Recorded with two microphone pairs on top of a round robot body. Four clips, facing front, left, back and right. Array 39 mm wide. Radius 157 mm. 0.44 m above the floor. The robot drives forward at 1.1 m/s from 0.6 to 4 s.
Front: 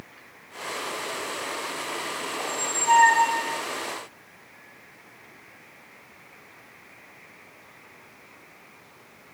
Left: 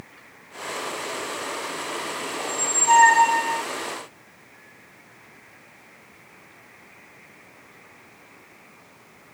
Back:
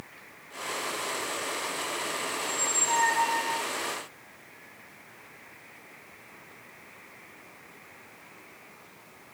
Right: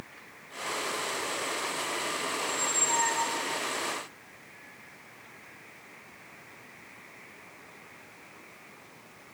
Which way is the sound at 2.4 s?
40° left.